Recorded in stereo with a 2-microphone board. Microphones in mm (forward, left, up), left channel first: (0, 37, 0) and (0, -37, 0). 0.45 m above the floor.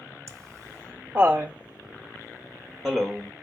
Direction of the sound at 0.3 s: 35° right (ahead or behind).